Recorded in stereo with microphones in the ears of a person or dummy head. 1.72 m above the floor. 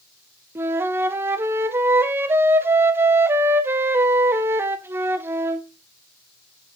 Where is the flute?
10° right (ahead or behind), 0.7 m.